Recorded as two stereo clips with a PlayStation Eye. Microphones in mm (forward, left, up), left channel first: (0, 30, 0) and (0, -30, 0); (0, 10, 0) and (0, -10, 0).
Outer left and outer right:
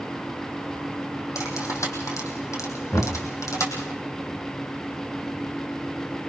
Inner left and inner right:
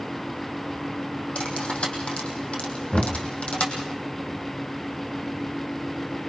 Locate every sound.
1.4 s cutlery clinking: 60° left (ahead or behind), 4 m
2.9 s knocking: 55° left (ahead or behind), 2.5 m